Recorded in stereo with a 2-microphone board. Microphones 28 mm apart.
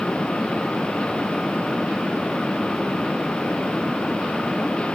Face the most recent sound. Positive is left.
No sound to turn to.